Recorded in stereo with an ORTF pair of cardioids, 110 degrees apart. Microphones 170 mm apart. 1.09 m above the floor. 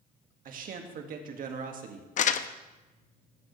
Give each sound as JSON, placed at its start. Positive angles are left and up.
{"t": 0.5, "sound": "a man speaking", "azimuth_deg": -60, "distance_m": 1.9}
{"t": 2.2, "sound": "crumpling", "azimuth_deg": 50, "distance_m": 0.7}